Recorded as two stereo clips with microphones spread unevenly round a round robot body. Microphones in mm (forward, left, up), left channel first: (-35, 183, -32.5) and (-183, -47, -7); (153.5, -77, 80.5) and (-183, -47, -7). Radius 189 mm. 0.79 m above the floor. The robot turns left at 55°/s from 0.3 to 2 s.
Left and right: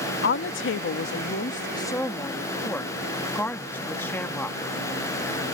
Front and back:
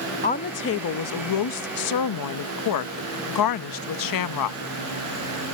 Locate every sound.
0.2 s a woman speaking: 70° left; by 4.6 s 20° right